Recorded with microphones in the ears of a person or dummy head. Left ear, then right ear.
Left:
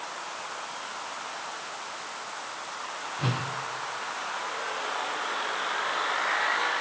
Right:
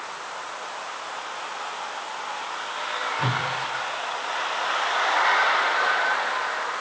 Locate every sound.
3.2 s a whoosh: 10° right (ahead or behind), 1.0 m